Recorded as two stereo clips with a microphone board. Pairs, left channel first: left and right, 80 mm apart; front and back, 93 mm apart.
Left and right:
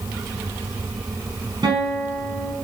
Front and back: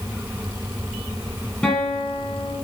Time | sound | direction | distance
1.6 | a guitar | 70° right | 3.5 m